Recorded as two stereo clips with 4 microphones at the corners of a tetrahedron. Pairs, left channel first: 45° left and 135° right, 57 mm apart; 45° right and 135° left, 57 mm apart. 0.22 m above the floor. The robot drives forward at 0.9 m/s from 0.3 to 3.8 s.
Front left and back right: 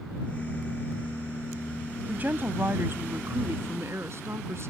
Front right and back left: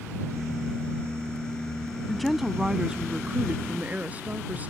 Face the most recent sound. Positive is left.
turn(degrees=-165)